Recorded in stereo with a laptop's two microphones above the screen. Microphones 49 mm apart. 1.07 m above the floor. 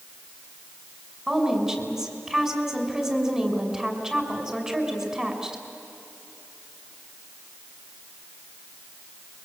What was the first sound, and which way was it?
A woman speaking, 15° right (ahead or behind).